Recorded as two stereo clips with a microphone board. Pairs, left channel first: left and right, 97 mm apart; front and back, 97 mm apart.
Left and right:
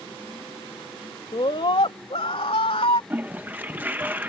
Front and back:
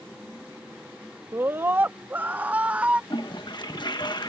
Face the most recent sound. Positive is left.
turn(degrees=-25)